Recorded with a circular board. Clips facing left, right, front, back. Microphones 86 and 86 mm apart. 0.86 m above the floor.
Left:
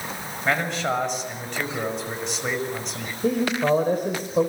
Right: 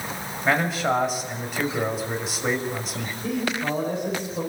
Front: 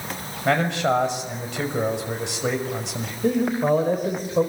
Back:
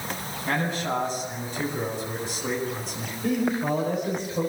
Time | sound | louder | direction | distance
0.5 | a man speaking | right 2 dB, front 7 dB | 5° right | 5.5 m
3.2 | a man speaking | left 6 dB, front 4 dB | 45° left | 4 m